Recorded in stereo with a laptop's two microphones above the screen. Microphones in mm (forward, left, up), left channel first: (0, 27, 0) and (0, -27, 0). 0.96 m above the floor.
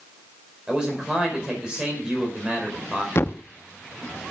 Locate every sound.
0.7 s a man speaking: 15° right (ahead or behind), 4 m
3.1 s a thud: 50° left (ahead or behind), 0.5 m